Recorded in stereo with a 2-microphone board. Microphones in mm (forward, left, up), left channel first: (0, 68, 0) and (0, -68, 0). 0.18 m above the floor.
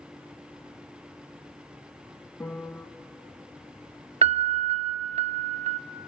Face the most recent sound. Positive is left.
turn(degrees=-55)  # may be behind; listen again after turning